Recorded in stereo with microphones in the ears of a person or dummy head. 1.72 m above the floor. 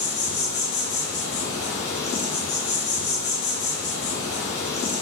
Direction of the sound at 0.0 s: 55° left (ahead or behind).